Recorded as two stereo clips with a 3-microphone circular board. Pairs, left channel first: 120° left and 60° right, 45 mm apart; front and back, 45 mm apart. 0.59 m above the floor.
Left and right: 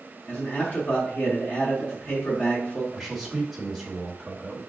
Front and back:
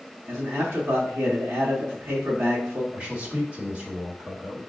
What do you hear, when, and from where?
0.3 s a man speaking: 150° left, 1.0 m
2.9 s a man speaking: 150° right, 1.4 m